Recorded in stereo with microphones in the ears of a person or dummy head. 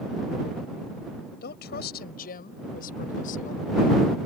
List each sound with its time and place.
1.4 s a woman speaking: 55° left (ahead or behind); by 3.6 s 45° left (ahead or behind)